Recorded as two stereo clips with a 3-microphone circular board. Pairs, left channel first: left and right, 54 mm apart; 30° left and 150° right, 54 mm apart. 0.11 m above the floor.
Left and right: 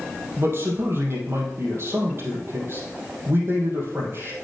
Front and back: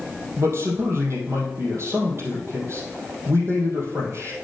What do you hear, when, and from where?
0.4 s a man speaking: 120° right, 3 m